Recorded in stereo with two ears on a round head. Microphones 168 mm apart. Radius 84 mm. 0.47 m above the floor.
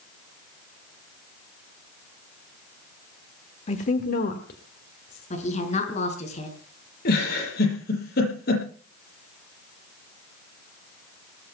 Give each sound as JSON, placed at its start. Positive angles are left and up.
{"t": 3.7, "sound": "a woman speaking", "side_deg": 35, "distance_m": 1.4}
{"t": 5.3, "sound": "a woman speaking", "side_deg": 40, "distance_m": 5.5}
{"t": 7.0, "sound": "a giggle", "side_deg": 55, "distance_m": 8.0}